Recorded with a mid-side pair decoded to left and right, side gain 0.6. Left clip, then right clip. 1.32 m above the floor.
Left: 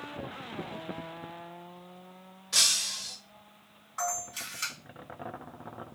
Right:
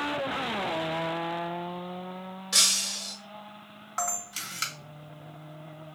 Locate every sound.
2.5 s breaking glass: 45° right, 1.4 m
4.0 s a camera shutter: 70° right, 1.5 m